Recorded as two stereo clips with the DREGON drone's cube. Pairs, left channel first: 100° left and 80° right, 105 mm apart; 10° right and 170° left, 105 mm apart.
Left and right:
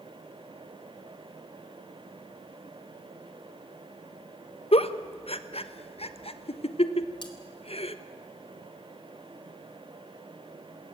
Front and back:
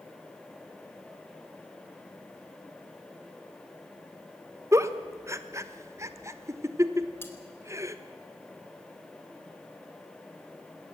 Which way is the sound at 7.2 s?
55° left.